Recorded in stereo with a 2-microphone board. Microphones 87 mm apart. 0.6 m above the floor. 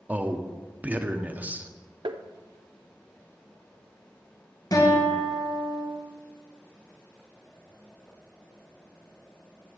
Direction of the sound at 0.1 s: 20° right (ahead or behind).